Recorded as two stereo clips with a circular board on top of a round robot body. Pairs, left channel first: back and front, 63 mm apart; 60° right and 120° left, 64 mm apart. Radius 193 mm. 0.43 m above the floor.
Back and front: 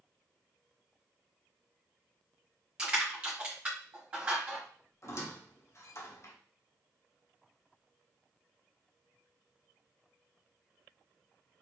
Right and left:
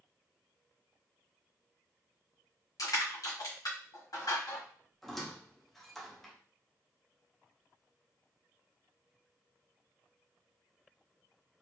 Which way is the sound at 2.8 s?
75° right.